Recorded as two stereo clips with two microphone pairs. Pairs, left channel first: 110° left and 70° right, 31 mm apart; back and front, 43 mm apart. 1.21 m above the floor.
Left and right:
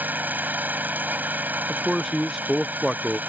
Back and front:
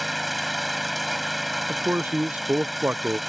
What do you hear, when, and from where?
0.0 s an engine running: 90° right
1.7 s a man speaking: 10° left